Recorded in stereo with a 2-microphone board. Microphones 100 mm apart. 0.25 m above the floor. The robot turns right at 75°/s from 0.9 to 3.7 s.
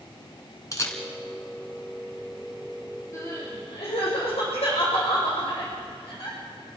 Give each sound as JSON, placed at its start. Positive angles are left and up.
{"t": 0.7, "sound": "a camera shutter", "side_deg": 30, "distance_m": 3.0}
{"t": 3.1, "sound": "crying", "side_deg": 30, "distance_m": 8.5}